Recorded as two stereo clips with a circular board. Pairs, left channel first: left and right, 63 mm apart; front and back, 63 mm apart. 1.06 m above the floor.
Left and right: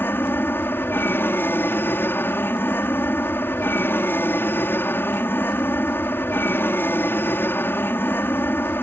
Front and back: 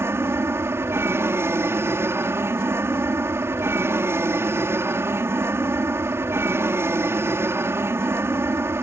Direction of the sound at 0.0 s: 140° left.